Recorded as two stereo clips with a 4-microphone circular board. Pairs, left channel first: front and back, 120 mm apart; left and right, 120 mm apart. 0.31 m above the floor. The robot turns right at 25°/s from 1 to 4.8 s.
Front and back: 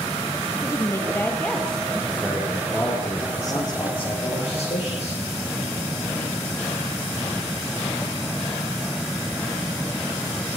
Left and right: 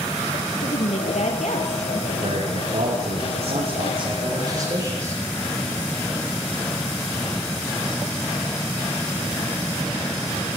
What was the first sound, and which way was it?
A woman speaking, 65° left.